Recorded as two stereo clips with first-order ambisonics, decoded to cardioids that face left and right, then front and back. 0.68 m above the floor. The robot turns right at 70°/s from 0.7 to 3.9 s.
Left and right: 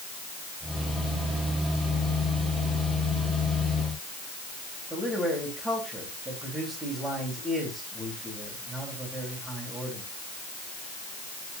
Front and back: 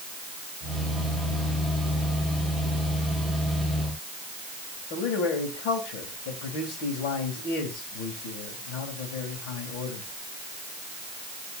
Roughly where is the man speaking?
Ahead.